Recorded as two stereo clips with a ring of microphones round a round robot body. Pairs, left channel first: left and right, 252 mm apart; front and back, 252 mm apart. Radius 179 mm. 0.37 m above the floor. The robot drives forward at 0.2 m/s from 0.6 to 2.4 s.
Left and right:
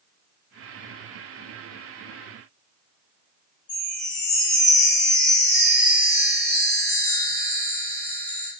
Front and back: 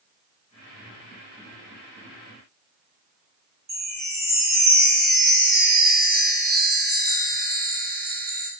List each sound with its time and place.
3.7 s a chime: 125° left, 2.0 m